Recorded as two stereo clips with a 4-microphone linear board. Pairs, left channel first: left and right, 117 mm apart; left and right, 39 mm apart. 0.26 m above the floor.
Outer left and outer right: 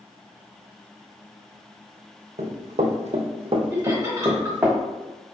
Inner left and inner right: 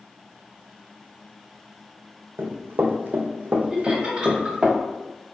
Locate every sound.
2.4 s running footsteps: 75° right (ahead or behind), 0.9 m; by 4.7 s 15° right (ahead or behind), 1.0 m
3.7 s laughter: 25° right (ahead or behind), 1.7 m